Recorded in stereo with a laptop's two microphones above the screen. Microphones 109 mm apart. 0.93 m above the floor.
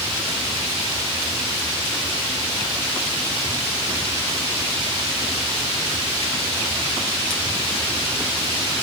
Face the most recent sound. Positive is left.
No sound to turn to.